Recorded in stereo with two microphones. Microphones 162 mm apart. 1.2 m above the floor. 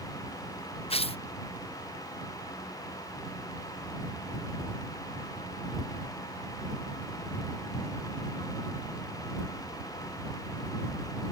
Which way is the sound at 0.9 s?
35° left (ahead or behind).